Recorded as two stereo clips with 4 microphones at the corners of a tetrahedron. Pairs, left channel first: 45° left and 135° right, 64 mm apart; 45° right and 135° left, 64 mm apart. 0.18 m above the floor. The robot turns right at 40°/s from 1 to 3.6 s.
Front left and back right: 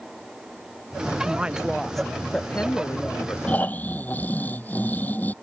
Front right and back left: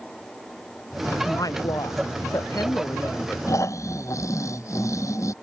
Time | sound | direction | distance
1.2 | a woman speaking | 70° right | ?
3.5 | snoring | 20° right | ?